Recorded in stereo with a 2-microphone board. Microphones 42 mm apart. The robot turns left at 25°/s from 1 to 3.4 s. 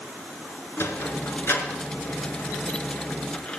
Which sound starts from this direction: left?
A sliding door, at 0.8 s.